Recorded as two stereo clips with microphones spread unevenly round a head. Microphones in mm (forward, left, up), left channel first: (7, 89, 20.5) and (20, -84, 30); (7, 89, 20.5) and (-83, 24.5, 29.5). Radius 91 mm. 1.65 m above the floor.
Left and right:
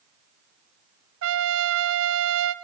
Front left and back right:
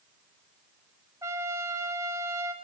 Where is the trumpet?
70° right, 0.5 m.